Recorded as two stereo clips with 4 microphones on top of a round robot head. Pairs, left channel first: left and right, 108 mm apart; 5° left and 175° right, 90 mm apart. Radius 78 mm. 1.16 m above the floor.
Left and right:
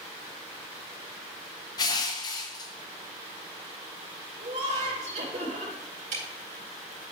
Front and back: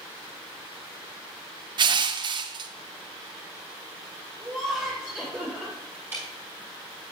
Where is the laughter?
95° right, 3.5 m.